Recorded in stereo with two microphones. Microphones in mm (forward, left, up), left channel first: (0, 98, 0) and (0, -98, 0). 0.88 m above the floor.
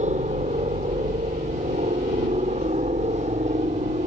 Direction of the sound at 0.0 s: 35° right (ahead or behind).